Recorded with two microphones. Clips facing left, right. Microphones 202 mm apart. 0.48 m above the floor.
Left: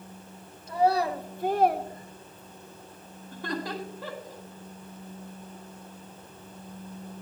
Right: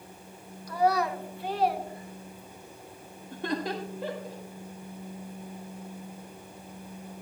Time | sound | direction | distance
0.7 | a child speaking | 25° left (ahead or behind) | 1.5 m
3.3 | laughter | 20° right (ahead or behind) | 1.6 m